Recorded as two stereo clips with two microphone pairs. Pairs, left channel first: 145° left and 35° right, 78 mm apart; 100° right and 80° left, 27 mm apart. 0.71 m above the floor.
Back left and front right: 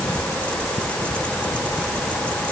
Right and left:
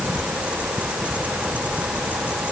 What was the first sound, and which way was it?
Only background noise.